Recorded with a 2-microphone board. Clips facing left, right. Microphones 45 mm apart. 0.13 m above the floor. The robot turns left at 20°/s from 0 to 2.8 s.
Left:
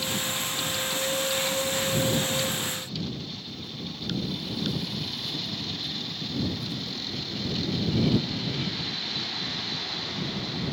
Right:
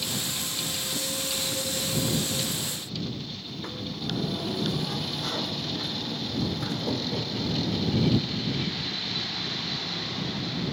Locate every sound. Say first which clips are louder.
3.4 s a sliding door: right 2 dB; 65° right (ahead or behind)